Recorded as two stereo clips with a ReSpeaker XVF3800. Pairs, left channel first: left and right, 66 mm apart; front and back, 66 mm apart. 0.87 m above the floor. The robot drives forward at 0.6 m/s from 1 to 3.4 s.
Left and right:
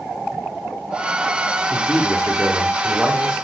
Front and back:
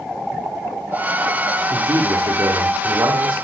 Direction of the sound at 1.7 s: 175° left.